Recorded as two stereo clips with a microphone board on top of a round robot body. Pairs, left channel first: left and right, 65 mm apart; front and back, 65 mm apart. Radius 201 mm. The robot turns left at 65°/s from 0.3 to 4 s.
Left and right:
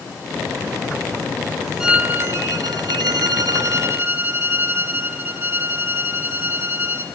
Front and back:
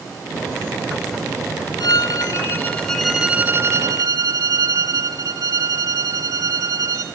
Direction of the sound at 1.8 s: 10° right.